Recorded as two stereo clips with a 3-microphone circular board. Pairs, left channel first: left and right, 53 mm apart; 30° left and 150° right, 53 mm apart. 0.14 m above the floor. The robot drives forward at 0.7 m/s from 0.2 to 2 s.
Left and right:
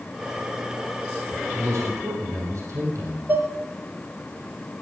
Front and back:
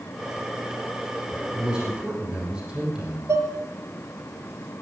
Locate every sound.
1.5 s a man speaking: 80° right, 6.5 m
3.3 s dishes clattering: 135° right, 1.7 m